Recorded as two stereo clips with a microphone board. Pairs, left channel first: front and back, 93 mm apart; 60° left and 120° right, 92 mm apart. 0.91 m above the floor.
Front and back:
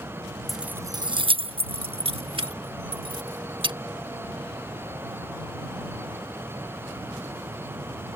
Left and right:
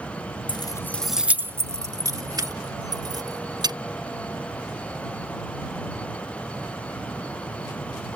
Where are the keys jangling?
90° left; by 3.8 s 160° right.